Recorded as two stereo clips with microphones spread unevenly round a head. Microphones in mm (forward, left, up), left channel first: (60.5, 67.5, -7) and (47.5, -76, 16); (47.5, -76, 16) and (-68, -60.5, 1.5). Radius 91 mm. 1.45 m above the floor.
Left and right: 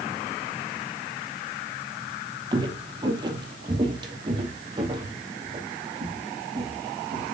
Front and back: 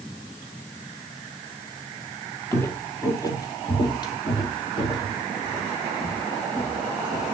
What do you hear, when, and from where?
2.5 s footsteps: 60° right, 2.0 m; by 7.2 s 40° right, 5 m